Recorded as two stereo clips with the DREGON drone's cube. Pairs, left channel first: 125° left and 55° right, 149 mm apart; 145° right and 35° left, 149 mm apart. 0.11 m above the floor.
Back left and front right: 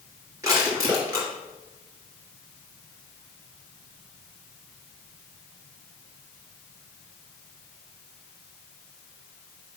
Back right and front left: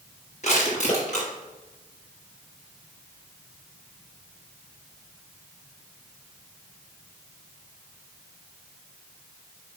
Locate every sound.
0.4 s crushing: 120° right, 3.5 m